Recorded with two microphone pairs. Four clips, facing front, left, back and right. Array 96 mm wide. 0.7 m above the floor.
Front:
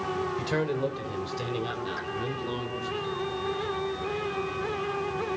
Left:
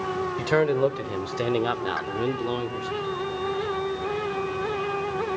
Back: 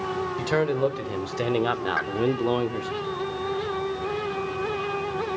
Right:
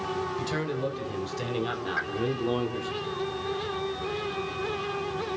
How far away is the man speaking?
About 2 m.